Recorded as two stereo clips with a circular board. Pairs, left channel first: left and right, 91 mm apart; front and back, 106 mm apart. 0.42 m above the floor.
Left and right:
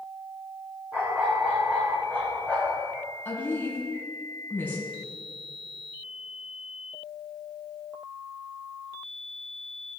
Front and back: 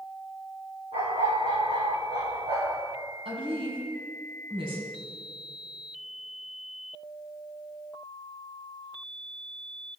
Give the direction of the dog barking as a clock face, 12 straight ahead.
5 o'clock.